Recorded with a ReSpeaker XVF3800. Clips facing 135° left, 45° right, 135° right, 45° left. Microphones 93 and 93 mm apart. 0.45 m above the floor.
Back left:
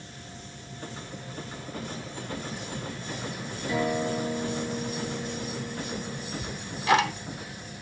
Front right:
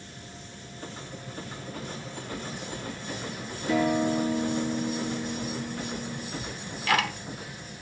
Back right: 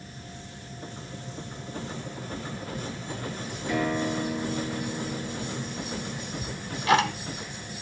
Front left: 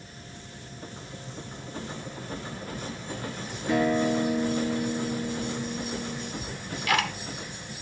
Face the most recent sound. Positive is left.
turn(degrees=-175)